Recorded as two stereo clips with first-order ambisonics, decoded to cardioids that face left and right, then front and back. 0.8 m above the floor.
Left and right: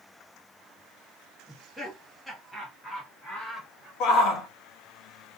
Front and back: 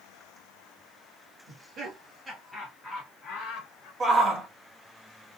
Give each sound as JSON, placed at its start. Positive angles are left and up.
{"t": 1.5, "sound": "laughter", "azimuth_deg": 175, "distance_m": 1.2}
{"t": 4.0, "sound": "a shout", "azimuth_deg": 120, "distance_m": 0.7}